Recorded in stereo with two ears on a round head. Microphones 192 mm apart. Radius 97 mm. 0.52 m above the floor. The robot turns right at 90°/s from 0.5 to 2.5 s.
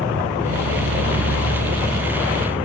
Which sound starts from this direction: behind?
An insect, at 0.0 s.